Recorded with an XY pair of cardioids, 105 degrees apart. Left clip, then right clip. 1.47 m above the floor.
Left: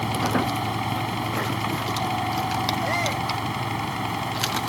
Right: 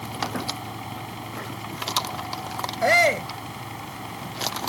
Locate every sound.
0.0 s a fan: 60° left
2.8 s a shout: 60° right